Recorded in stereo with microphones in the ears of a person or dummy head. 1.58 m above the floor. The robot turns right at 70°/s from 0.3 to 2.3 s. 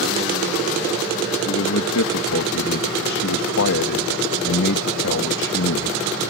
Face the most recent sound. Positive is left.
turn(degrees=115)